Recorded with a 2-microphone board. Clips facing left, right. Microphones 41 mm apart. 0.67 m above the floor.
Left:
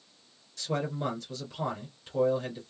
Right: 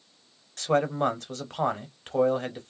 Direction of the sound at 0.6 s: 55° right (ahead or behind).